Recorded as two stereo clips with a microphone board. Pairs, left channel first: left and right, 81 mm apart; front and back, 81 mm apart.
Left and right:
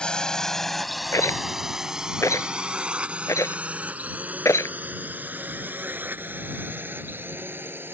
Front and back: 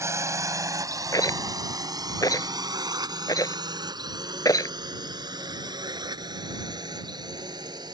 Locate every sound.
0.0 s a drone: 160° left; by 7.9 s 150° right
1.1 s a rattle: 40° left